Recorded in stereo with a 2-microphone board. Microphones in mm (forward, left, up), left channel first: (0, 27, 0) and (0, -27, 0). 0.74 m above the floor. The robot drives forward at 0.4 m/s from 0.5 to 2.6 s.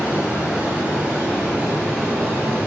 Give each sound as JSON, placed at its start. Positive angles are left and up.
{"t": 0.0, "sound": "running water", "side_deg": -30, "distance_m": 5.5}